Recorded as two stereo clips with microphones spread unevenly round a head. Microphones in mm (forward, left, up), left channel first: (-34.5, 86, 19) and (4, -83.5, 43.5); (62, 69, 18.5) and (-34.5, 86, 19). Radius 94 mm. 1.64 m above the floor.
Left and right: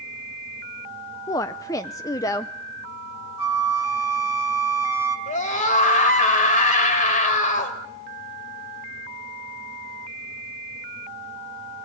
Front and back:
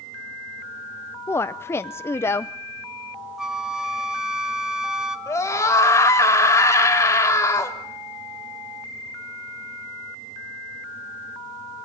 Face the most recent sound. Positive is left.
turn(degrees=50)